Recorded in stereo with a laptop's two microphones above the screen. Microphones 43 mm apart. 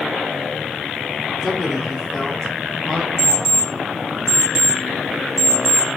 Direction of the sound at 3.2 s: 55° right (ahead or behind).